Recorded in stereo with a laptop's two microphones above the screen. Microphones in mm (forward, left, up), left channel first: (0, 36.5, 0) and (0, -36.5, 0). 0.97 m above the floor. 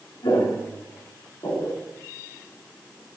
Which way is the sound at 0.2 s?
75° left (ahead or behind).